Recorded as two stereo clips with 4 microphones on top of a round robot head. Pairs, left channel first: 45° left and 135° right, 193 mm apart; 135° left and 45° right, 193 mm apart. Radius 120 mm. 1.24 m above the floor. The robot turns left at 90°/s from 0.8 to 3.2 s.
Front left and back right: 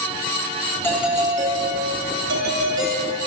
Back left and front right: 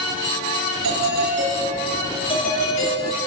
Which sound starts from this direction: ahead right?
A doorbell, at 0.8 s.